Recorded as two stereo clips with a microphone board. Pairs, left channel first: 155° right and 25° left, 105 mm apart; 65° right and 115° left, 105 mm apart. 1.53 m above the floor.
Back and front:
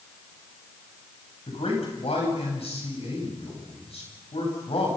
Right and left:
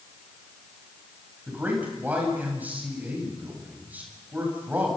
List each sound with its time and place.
1.5 s a man speaking: 175° right, 10 m